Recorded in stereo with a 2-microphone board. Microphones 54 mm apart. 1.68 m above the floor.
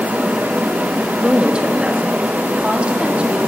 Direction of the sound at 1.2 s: 20° right (ahead or behind).